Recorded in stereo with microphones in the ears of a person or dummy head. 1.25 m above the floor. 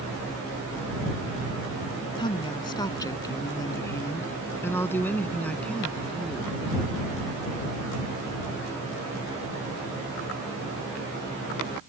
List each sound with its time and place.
2.2 s a woman speaking: 20° left (ahead or behind); by 6.6 s 5° right (ahead or behind)